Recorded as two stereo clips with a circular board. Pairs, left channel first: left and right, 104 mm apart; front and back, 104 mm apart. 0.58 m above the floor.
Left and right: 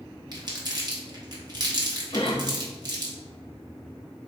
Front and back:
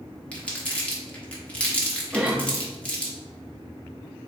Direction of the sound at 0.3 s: 75° right.